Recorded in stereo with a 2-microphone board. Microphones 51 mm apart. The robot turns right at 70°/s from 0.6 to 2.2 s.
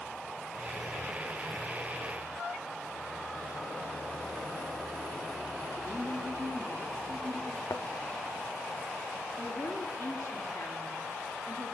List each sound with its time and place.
5.8 s a woman speaking: 80° right, 6.5 m
7.7 s a thud: 70° left (ahead or behind), 1.0 m
9.4 s a woman speaking: 65° left (ahead or behind), 3 m